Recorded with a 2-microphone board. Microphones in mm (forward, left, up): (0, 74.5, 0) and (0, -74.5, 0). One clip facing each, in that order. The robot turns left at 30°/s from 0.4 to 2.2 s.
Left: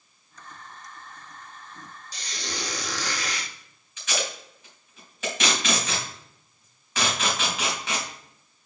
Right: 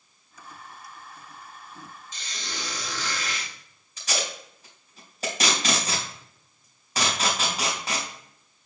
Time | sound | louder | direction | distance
2.1 | a squeak | left 4 dB | 35° left (ahead or behind) | 1.7 m
4.0 | tape being pulled | left 1 dB | 35° right (ahead or behind) | 3 m